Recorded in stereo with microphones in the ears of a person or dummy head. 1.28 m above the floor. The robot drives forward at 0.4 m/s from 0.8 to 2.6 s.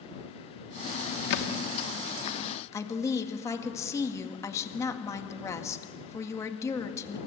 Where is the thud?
65° left (ahead or behind), 1.2 m.